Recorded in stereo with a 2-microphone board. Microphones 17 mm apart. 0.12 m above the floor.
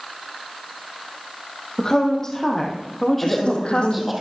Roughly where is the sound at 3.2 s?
Left.